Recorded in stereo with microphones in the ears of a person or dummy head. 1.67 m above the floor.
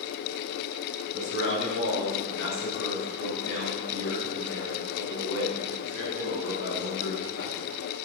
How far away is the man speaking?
About 3 m.